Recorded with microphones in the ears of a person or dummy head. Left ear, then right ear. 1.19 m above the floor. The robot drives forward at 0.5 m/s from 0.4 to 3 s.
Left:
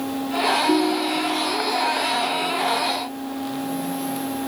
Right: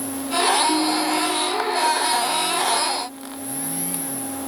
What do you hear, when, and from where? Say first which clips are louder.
0.7 s a ringtone: even; 35° left (ahead or behind), 5.5 m; by 1.6 s 40° left (ahead or behind), 5 m